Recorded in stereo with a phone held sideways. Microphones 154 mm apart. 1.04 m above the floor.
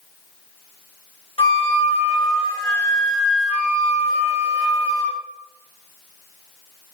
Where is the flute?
40° left (ahead or behind), 2.5 m.